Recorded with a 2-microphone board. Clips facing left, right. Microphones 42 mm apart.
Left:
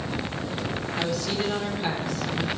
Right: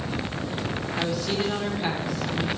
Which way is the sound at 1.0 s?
10° right (ahead or behind).